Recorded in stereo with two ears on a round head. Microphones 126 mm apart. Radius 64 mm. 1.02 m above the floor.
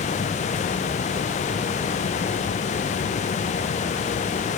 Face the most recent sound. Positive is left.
No sound to turn to.